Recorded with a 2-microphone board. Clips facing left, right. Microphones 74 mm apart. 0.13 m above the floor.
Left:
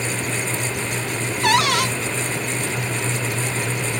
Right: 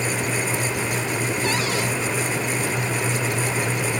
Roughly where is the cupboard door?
Left.